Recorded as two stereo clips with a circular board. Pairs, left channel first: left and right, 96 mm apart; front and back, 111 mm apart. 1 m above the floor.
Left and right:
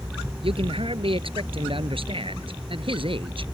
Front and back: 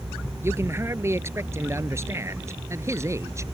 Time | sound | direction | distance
0.4 | a man speaking | 115° right | ?